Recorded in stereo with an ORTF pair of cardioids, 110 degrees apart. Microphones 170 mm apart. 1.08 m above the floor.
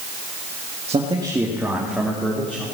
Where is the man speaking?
40° right, 1.8 m; by 2.6 s 10° left, 3.5 m.